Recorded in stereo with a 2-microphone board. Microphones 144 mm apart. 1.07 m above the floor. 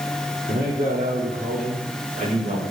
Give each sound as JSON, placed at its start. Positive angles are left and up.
{"t": 0.5, "sound": "a man speaking", "side_deg": -75, "distance_m": 3.0}